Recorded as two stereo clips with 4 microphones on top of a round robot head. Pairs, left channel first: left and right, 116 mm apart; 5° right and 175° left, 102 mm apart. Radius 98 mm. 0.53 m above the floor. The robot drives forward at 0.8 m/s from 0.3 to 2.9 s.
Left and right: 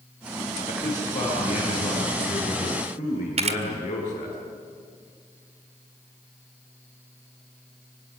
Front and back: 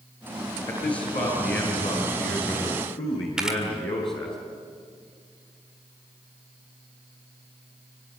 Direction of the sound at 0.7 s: 25° left.